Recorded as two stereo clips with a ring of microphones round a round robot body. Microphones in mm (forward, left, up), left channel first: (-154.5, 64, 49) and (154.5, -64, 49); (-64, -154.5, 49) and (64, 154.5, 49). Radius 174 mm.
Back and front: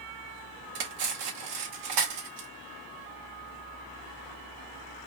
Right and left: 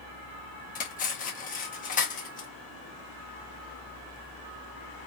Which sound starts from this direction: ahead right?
Cutlery clinking, at 0.8 s.